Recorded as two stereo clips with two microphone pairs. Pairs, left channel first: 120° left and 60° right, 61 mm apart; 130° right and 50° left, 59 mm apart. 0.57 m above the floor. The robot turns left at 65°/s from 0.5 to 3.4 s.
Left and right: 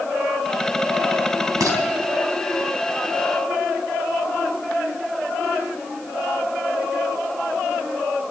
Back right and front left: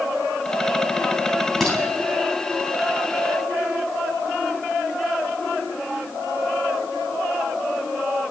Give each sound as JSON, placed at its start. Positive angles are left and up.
{"t": 1.6, "sound": "dishes clattering", "azimuth_deg": -45, "distance_m": 3.0}